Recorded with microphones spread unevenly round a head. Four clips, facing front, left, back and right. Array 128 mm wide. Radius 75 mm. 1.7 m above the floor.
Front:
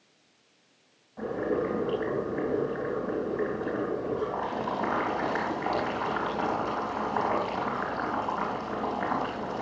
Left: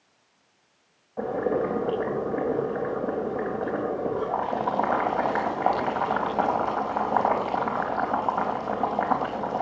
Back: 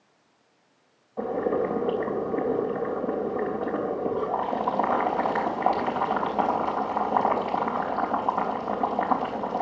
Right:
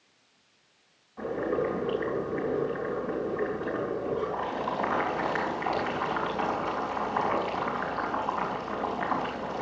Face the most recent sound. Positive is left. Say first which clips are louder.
# left 4 dB, back 3 dB
turn(degrees=135)